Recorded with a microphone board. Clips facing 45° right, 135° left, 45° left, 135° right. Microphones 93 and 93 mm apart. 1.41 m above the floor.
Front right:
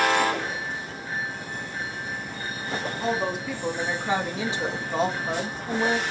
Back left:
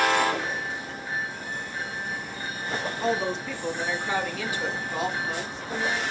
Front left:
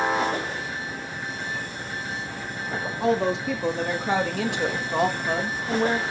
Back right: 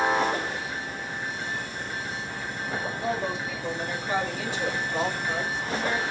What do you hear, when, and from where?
3.0 s a woman speaking: 40° left, 3 m; by 6.0 s 5° right, 2.5 m